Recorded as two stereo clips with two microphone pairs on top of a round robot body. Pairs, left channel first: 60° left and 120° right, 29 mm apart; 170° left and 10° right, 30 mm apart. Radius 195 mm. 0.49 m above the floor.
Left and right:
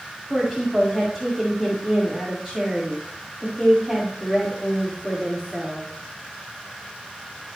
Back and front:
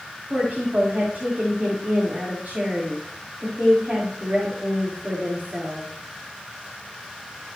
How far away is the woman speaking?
About 2.5 m.